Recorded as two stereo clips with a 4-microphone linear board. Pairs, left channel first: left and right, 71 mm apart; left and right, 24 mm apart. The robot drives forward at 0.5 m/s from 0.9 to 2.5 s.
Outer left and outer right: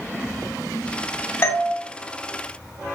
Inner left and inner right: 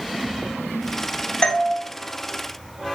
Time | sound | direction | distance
1.4 | a doorbell | 35° left (ahead or behind) | 1.9 m